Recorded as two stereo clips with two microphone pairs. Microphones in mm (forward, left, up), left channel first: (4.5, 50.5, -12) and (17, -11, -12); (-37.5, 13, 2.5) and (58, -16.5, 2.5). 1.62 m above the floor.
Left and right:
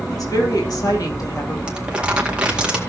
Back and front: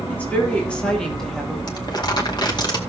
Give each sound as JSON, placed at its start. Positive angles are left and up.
{"t": 0.1, "sound": "a woman speaking", "azimuth_deg": 85, "distance_m": 3.5}
{"t": 1.7, "sound": "crumpling", "azimuth_deg": -150, "distance_m": 2.0}